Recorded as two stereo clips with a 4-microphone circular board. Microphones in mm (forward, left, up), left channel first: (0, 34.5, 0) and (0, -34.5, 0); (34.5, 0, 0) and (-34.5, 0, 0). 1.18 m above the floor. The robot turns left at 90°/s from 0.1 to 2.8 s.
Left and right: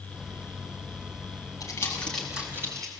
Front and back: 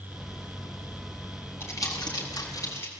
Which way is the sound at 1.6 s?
55° left.